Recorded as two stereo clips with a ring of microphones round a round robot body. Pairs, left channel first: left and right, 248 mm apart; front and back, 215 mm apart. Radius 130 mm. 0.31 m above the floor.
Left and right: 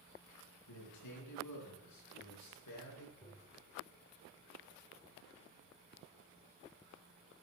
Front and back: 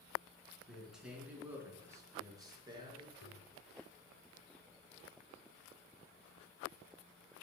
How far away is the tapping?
About 3.5 m.